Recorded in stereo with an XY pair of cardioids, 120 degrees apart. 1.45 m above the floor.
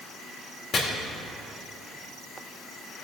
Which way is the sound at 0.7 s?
45° left.